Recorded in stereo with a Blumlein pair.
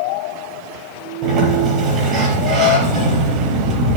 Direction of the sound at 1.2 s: 30° right.